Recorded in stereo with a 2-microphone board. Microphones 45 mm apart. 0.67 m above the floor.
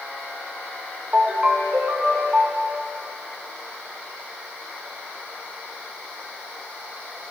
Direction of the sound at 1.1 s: 40° right (ahead or behind).